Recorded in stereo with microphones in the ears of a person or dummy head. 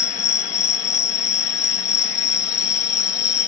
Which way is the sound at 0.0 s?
20° left (ahead or behind).